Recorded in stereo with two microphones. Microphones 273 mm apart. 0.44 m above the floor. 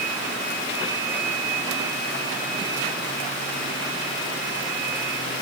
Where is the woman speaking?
No woman speaking in this recording.